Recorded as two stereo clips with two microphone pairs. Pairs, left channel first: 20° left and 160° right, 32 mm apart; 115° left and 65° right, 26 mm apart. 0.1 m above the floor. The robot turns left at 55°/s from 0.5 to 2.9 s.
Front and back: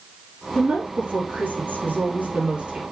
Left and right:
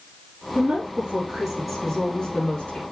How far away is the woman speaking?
About 3.5 m.